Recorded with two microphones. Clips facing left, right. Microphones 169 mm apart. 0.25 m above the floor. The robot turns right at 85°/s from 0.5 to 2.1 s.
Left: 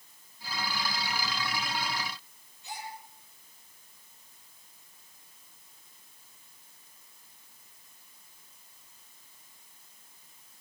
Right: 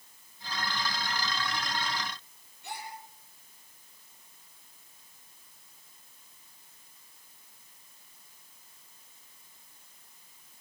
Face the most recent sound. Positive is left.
turn(degrees=-60)  # may be behind; listen again after turning